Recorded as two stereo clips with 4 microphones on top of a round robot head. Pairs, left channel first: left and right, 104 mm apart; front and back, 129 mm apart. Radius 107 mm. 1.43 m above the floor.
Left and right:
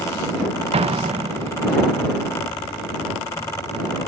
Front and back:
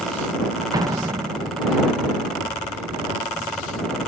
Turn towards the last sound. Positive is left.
turn(degrees=-115)